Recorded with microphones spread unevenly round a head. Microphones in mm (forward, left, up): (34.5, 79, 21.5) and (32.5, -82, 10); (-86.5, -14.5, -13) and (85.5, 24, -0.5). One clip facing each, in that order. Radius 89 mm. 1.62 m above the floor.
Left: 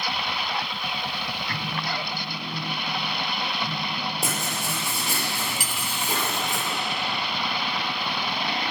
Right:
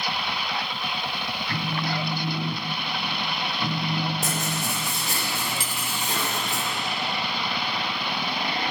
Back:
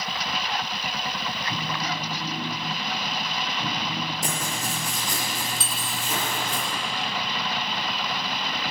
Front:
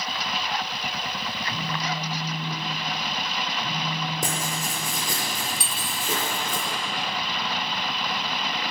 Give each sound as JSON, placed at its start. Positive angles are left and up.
{"t": 1.5, "sound": "a phone buzzing", "azimuth_deg": -110, "distance_m": 1.3}
{"t": 4.2, "sound": "writing", "azimuth_deg": 15, "distance_m": 5.5}
{"t": 5.6, "sound": "cutlery clinking", "azimuth_deg": -45, "distance_m": 0.9}